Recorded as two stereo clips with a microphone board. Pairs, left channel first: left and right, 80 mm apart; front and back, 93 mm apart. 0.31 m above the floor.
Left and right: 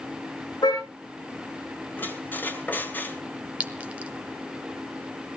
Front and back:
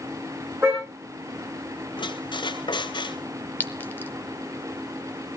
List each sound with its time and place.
0.6 s a car horn: 120° left, 6.5 m
2.0 s a squeak: 25° left, 2.0 m
3.6 s a clink: 40° right, 1.0 m